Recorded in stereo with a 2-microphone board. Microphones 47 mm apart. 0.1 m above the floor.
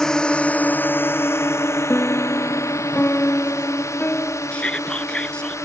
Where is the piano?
45° left (ahead or behind).